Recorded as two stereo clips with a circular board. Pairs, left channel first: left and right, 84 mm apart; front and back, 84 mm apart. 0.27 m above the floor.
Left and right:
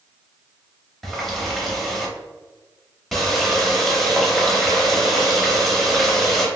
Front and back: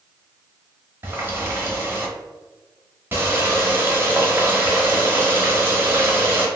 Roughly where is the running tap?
Behind.